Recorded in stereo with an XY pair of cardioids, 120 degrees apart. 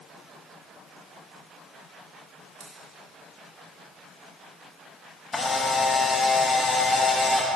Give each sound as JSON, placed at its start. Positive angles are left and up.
{"t": 2.6, "sound": "scissors", "azimuth_deg": -50, "distance_m": 3.0}
{"t": 5.3, "sound": "a camera shutter", "azimuth_deg": 20, "distance_m": 1.1}